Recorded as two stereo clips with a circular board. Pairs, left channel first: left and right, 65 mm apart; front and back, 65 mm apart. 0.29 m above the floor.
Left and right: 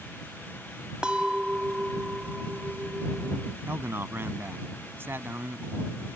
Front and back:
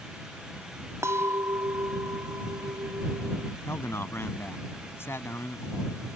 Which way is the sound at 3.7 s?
45° right.